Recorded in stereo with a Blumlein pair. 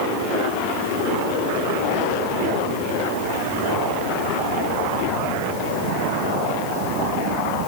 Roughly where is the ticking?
I don't hear ticking.